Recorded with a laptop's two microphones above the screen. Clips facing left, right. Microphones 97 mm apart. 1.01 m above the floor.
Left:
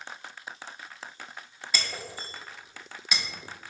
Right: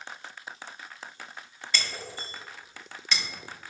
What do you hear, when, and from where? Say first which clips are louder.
1.7 s breaking glass: even; 10° left (ahead or behind), 0.7 m